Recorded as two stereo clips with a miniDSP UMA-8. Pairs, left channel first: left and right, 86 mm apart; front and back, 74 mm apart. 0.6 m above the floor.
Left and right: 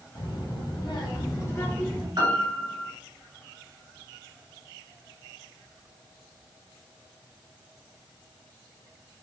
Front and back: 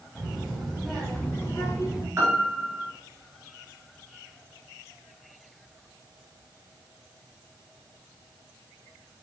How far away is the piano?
About 1.3 m.